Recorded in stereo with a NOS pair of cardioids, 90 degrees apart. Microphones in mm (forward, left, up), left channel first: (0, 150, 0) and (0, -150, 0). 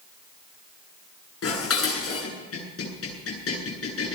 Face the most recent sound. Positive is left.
turn(degrees=45)